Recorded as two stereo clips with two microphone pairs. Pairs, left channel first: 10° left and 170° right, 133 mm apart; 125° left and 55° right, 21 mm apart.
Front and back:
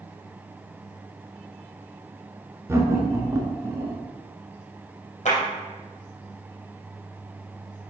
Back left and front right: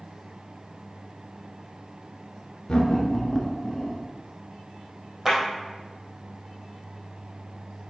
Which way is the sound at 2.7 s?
135° left.